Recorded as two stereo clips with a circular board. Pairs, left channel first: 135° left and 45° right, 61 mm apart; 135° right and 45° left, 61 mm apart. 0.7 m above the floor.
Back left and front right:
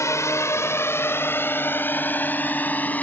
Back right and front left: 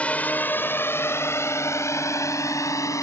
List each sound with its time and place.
0.0 s a drone: 155° left; by 3.0 s 165° right